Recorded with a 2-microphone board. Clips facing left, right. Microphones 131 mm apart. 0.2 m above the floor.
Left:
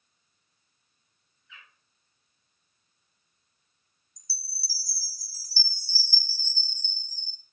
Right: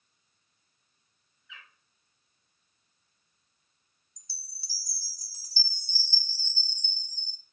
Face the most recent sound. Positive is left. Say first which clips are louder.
# left 6 dB
turn(degrees=-20)  # may be behind; listen again after turning